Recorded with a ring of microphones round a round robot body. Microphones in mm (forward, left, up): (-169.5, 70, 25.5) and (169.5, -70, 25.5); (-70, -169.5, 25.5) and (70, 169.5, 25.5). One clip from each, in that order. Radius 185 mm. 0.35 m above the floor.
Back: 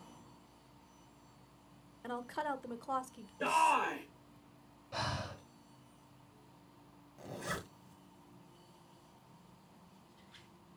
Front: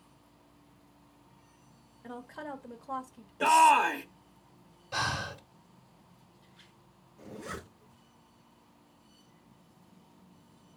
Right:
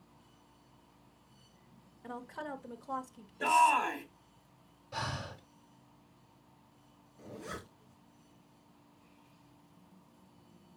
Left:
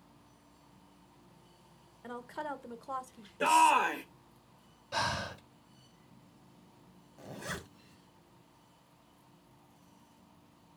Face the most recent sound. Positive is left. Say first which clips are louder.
# even, left 3 dB
turn(degrees=95)